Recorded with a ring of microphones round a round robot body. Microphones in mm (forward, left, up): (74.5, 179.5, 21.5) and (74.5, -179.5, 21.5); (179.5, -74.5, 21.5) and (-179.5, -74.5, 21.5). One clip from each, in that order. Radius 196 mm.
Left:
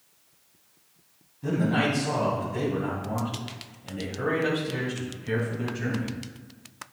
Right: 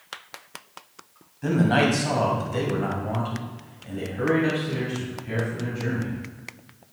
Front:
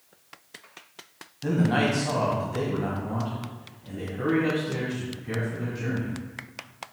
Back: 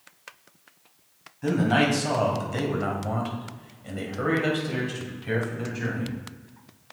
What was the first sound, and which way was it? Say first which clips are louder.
A man speaking: right 4 dB, back 2 dB; 125° right.